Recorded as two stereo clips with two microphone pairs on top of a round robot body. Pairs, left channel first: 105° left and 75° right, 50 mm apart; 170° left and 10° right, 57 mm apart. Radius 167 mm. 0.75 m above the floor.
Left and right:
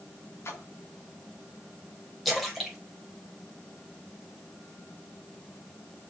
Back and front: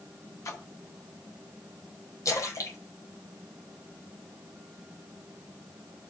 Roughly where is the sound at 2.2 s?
Behind.